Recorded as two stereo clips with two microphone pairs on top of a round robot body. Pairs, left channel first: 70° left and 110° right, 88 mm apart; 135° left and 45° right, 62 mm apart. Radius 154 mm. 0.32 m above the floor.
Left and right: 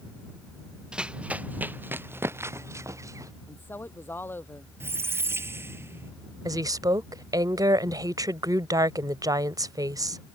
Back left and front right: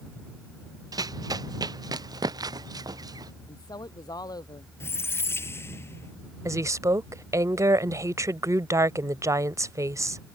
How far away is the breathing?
No breathing in this recording.